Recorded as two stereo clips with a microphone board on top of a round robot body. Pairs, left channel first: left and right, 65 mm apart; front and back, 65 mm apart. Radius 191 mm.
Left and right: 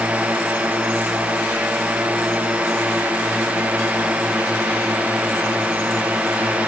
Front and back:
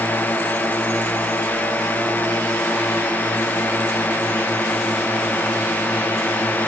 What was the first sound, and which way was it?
A drone, 35° right.